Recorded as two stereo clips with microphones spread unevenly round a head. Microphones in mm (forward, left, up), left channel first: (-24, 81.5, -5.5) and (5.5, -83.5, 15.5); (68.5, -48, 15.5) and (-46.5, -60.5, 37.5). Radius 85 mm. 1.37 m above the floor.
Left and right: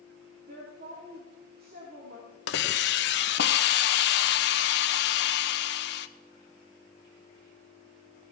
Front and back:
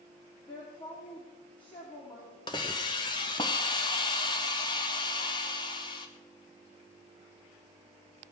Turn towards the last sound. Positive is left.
turn(degrees=70)